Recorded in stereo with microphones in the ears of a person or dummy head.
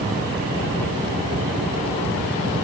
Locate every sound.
Only background noise.